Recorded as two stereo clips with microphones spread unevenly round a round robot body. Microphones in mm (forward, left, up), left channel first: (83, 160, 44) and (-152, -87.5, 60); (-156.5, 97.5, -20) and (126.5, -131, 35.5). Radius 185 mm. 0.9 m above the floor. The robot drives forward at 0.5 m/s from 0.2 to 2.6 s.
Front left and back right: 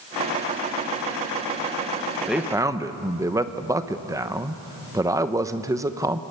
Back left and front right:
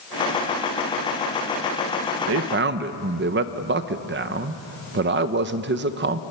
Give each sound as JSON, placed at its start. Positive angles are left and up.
{"t": 2.3, "sound": "a man speaking", "azimuth_deg": -40, "distance_m": 0.9}